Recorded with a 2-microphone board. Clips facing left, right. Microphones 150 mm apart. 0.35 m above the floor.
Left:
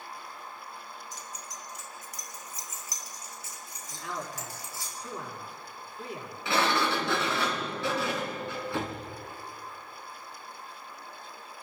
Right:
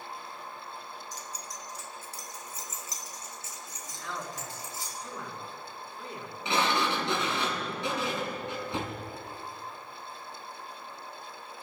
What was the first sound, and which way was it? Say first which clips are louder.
Keys jangling: right 1 dB; 40° right (ahead or behind).